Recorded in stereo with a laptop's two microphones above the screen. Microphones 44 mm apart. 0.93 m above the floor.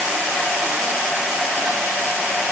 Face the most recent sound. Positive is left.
No sound to turn to.